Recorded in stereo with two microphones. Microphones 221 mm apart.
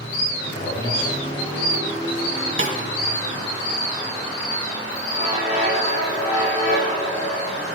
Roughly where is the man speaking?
Left.